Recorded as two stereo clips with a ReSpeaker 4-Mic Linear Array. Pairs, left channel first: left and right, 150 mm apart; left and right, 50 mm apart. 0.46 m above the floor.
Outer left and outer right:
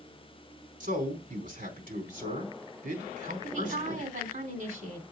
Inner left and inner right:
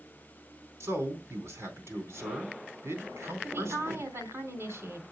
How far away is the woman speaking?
About 3 m.